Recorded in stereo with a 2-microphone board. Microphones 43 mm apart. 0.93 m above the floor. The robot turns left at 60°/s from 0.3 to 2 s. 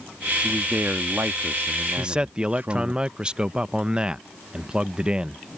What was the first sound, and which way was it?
A man speaking, 25° right.